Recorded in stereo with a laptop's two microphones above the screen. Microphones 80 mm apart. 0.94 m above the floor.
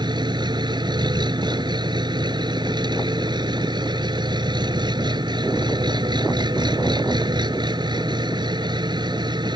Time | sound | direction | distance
0.0 | an engine running | 70° right (ahead or behind) | ?